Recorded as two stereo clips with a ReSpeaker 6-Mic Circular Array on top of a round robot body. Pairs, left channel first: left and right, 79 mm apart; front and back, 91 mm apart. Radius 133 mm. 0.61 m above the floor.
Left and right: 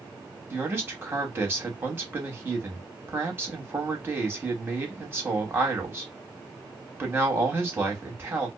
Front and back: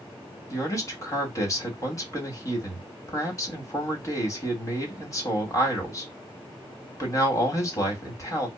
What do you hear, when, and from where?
0.5 s a man speaking: 35° right, 1.5 m